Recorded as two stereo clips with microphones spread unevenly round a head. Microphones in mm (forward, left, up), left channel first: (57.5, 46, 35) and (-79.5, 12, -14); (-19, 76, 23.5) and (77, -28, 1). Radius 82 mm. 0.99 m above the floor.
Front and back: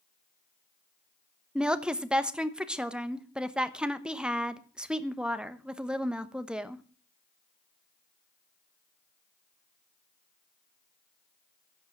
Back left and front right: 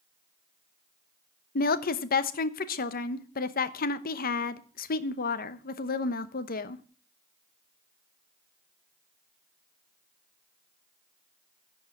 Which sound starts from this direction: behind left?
A woman speaking, at 1.6 s.